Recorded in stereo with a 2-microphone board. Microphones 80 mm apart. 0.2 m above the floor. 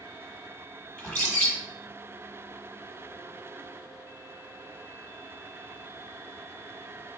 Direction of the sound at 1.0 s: 15° left (ahead or behind).